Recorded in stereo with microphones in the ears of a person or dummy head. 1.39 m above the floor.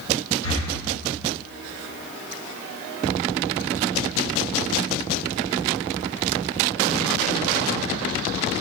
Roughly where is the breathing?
Left.